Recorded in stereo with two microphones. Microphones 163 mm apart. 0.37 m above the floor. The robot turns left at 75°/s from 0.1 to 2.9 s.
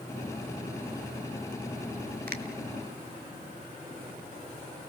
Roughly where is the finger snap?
Right.